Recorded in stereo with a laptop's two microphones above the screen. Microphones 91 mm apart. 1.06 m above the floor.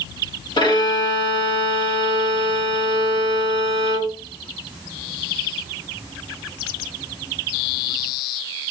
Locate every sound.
0.6 s a violin: 55° left (ahead or behind), 1.6 m